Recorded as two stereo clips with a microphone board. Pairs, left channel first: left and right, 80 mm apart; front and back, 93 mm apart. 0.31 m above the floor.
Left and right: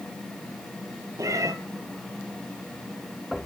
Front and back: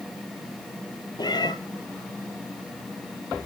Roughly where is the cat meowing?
Ahead right.